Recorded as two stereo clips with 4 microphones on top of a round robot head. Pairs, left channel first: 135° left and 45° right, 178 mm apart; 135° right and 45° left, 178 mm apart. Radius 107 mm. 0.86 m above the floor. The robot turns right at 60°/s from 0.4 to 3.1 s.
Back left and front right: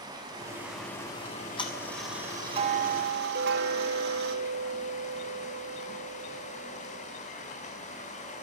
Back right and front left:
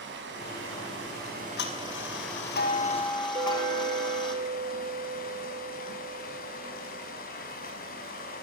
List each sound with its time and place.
0.0 s running water: 25° left, 5.5 m; by 8.4 s 175° right, 5.5 m
1.2 s ticking: straight behind, 5 m; by 4.3 s 70° right, 5 m
3.4 s a clink: 20° right, 2.5 m